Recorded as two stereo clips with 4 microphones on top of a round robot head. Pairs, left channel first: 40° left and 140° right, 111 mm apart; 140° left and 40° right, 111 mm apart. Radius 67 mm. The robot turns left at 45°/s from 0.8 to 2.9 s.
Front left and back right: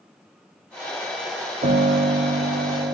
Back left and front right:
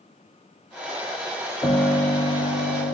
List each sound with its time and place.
1.6 s a piano: 150° right, 0.6 m; by 2.9 s 150° left, 0.6 m